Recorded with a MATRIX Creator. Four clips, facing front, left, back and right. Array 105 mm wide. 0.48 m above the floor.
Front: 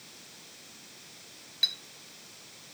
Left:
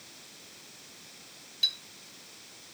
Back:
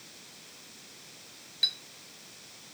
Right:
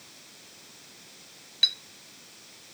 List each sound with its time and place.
1.6 s a clink: 80° right, 1.1 m